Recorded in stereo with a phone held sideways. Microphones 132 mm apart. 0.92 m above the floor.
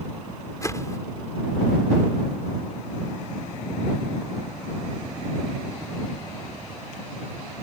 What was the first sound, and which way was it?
A whoosh, 25° left (ahead or behind).